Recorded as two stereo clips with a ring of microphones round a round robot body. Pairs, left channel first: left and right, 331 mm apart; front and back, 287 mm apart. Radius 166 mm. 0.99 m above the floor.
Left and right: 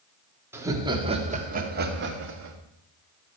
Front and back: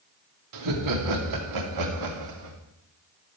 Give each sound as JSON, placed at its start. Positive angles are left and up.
{"t": 0.5, "sound": "laughter", "azimuth_deg": -175, "distance_m": 2.5}